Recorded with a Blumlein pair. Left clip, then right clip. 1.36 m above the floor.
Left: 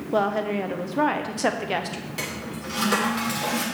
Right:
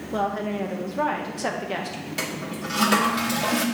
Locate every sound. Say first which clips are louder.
0.1 s a woman speaking: left 3 dB; 15° left, 0.9 m
2.2 s a toilet flushing: right 3 dB; 10° right, 1.3 m